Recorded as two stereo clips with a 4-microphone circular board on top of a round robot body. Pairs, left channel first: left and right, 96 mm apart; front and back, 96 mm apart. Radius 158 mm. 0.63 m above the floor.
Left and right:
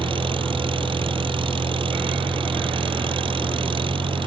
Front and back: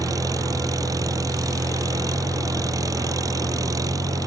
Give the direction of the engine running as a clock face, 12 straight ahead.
4 o'clock.